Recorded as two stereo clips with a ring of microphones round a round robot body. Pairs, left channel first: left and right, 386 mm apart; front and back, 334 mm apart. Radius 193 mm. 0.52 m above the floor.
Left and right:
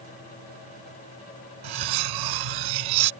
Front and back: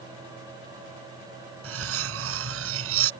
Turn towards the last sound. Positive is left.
turn(degrees=-120)